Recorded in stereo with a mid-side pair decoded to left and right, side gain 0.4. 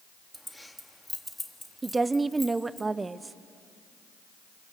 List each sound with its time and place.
0.3 s keys jangling: 5° left, 1.9 m
1.8 s a woman speaking: 30° right, 0.9 m